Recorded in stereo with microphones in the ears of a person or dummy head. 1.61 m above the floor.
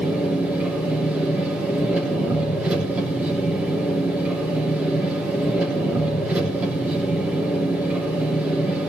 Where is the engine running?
10° right (ahead or behind), 3.5 m.